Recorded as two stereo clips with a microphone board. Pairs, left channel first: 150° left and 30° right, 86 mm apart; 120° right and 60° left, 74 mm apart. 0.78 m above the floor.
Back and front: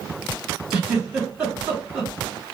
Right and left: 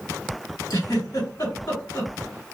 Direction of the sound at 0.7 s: 110° right.